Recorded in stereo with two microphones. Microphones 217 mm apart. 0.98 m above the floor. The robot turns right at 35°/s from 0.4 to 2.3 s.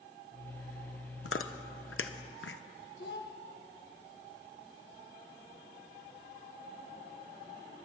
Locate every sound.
1.2 s chewing: 70° left (ahead or behind), 0.6 m; by 2.6 s 65° left (ahead or behind), 0.6 m
3.0 s a child speaking: 50° left (ahead or behind), 1.0 m